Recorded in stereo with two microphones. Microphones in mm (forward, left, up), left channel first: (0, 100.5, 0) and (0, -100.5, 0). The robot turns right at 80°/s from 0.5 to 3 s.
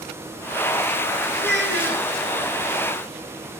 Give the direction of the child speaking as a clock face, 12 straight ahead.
4 o'clock.